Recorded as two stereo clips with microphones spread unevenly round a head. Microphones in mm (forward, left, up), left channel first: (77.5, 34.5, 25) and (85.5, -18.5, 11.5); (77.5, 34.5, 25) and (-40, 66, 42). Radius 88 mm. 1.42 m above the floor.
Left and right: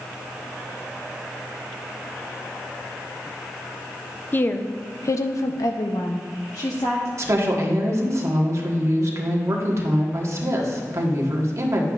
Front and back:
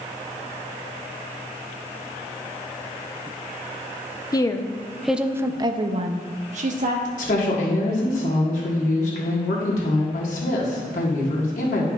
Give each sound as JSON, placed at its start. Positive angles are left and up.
{"t": 4.3, "sound": "a woman speaking", "azimuth_deg": 45, "distance_m": 0.8}
{"t": 7.2, "sound": "a woman speaking", "azimuth_deg": -50, "distance_m": 1.5}